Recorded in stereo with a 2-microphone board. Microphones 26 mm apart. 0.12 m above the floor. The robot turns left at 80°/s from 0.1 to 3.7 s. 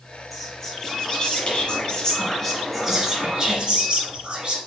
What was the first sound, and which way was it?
Whispering, 165° right.